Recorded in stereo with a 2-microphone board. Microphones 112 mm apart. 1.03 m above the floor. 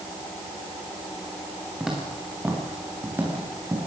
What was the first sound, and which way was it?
Footsteps, 5° right (ahead or behind).